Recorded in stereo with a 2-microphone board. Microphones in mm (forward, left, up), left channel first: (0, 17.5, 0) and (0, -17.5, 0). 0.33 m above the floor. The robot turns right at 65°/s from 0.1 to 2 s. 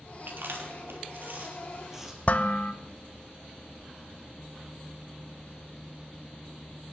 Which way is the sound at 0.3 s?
60° right (ahead or behind).